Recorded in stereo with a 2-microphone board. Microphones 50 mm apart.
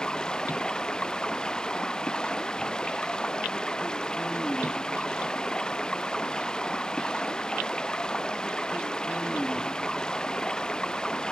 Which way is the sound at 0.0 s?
15° left (ahead or behind).